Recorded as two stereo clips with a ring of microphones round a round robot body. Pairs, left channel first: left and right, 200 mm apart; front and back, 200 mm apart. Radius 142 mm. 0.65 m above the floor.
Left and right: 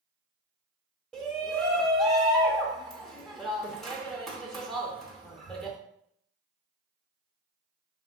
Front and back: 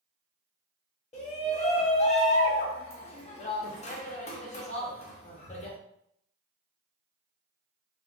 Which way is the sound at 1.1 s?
5° left.